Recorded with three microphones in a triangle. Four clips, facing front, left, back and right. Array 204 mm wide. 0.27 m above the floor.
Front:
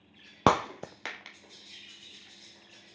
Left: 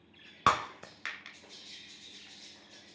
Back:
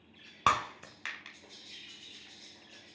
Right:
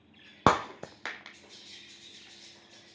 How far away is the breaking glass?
About 1.1 m.